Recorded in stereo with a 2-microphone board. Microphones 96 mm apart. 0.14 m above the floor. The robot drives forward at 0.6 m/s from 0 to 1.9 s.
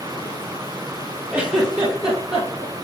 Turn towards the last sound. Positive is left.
turn(degrees=-5)  # may be behind; listen again after turning